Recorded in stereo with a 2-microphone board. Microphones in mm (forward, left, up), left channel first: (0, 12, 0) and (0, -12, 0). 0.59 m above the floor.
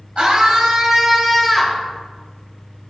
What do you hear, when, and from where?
0.2 s a scream: 50° right (ahead or behind), 2.5 m; by 1.8 s 10° left (ahead or behind), 2 m